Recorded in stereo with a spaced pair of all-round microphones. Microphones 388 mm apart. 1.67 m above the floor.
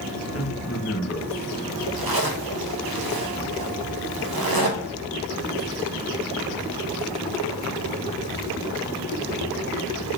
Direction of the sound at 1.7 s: 65° right (ahead or behind).